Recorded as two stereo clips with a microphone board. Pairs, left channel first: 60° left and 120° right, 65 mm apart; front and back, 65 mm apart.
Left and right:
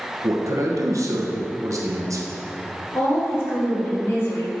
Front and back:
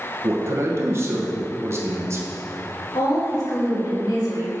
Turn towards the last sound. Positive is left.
turn(degrees=10)